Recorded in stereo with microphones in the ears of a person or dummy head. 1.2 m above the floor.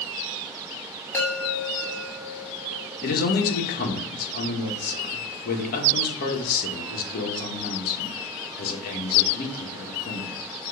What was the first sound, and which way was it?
A chime, 10° left (ahead or behind).